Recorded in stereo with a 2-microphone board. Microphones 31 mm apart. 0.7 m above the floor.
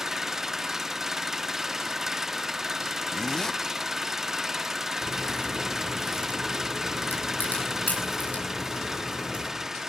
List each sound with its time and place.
0.0 s an engine running: 10° right (ahead or behind), 0.7 m
3.1 s a zipper: 20° left (ahead or behind), 0.7 m
5.0 s a crack: 60° left (ahead or behind), 8.5 m